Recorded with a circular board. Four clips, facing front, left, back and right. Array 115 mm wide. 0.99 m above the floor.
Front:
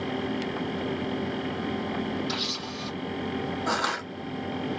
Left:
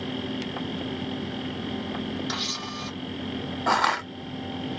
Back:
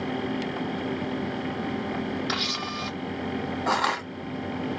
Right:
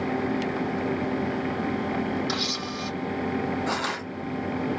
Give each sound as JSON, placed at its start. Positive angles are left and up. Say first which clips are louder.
{"t": 2.3, "sound": "a camera shutter", "louder": "right 3 dB, back 3 dB", "azimuth_deg": -170, "distance_m": 0.8}
{"t": 3.7, "sound": "crushing", "louder": "left 5 dB, back 5 dB", "azimuth_deg": 110, "distance_m": 1.5}